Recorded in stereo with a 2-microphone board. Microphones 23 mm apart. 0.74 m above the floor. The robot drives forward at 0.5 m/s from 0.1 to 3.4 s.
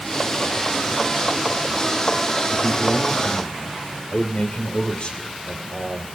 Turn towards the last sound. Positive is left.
turn(degrees=55)  # may be behind; listen again after turning